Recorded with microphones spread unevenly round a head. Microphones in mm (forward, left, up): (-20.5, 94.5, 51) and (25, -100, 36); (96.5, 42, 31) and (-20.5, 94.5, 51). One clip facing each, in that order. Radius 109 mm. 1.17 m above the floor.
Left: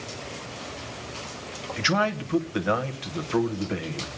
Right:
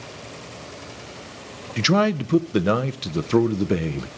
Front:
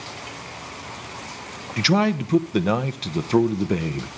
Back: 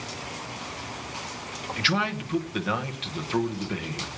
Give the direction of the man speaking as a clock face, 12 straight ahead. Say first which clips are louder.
Right 7 dB, front 9 dB; 2 o'clock.